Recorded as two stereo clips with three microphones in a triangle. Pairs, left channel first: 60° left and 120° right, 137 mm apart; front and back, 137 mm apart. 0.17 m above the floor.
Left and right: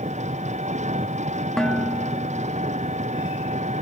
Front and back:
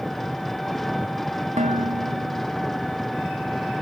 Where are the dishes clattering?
145° left.